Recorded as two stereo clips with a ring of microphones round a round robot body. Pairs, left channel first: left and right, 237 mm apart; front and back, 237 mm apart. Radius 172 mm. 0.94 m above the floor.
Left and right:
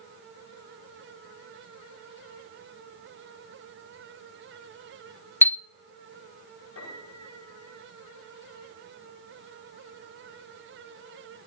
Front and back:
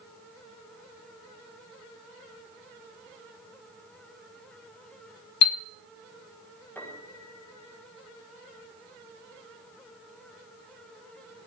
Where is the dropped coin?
I don't hear a dropped coin.